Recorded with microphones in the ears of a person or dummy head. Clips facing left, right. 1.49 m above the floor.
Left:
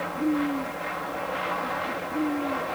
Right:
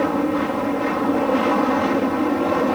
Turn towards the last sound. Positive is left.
turn(degrees=-55)  # may be behind; listen again after turning